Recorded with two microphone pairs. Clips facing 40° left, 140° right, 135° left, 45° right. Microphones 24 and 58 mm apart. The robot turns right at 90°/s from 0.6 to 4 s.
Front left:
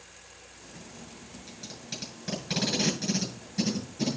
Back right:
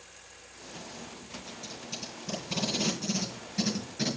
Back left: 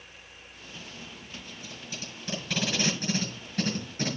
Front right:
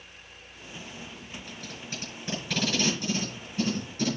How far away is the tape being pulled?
About 6.5 m.